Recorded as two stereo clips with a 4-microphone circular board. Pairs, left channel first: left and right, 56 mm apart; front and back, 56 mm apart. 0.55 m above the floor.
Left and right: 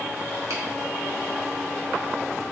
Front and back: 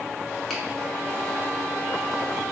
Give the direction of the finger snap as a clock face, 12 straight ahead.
3 o'clock.